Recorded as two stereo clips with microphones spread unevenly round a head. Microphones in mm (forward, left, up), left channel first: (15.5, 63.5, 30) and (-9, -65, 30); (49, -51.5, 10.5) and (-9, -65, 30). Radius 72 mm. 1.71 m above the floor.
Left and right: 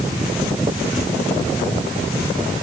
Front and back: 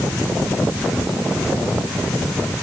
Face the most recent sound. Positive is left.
No sound to turn to.